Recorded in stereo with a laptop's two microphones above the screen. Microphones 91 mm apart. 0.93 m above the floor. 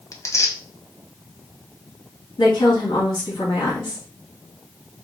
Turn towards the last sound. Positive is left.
turn(degrees=65)  # may be behind; listen again after turning